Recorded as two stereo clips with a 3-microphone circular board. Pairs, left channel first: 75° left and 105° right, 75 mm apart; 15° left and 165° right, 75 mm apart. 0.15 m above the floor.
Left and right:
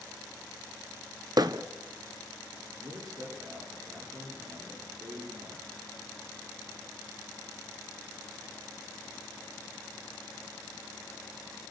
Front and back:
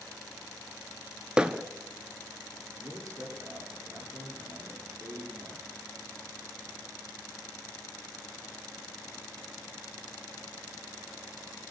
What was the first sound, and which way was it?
Hammering, 90° right.